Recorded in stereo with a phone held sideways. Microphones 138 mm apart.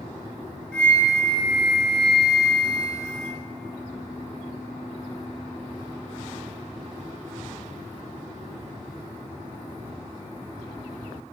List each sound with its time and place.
0.7 s a flute: 5° left (ahead or behind), 4.5 m